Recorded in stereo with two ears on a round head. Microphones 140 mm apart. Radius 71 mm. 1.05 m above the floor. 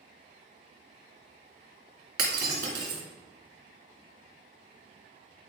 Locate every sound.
2.2 s breaking glass: 65° right (ahead or behind), 2.5 m